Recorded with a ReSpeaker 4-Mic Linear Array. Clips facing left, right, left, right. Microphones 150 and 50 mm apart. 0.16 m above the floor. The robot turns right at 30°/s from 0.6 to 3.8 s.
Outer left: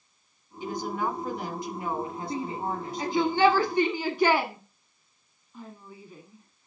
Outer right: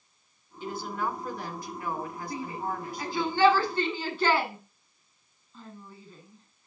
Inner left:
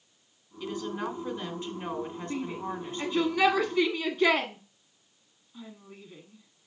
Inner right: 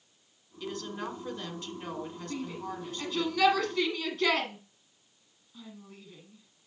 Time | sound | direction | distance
0.6 | a woman speaking | 15° left (ahead or behind) | 1.7 m
2.3 | a shout | 25° left (ahead or behind) | 1.1 m